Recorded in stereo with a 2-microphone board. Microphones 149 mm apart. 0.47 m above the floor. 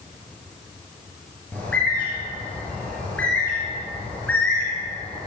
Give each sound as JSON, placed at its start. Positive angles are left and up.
{"t": 1.5, "sound": "a bird", "side_deg": 10, "distance_m": 5.0}